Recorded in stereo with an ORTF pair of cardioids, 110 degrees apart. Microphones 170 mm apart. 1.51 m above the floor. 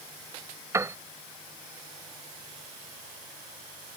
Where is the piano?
15° right.